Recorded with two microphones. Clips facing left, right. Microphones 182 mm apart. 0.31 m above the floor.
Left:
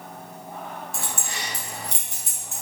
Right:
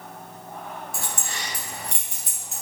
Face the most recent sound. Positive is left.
turn(degrees=55)  # may be behind; listen again after turning